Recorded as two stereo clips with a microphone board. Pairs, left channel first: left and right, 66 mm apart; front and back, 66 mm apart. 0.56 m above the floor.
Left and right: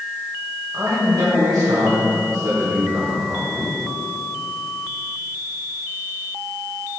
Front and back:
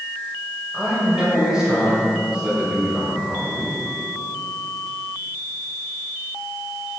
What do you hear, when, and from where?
0.7 s a man speaking: 100° right, 2.5 m